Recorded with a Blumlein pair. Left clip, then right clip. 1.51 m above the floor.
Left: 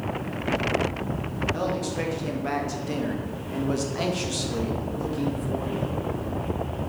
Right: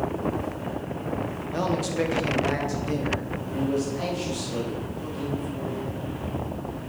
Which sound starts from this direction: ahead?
A man speaking, at 1.5 s.